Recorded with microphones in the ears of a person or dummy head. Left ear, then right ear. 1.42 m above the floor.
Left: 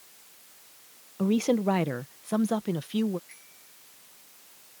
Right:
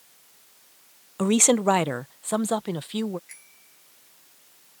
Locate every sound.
1.2 s a woman speaking: 60° right (ahead or behind); by 3.2 s 25° right (ahead or behind)
3.3 s a bicycle bell: 45° right (ahead or behind)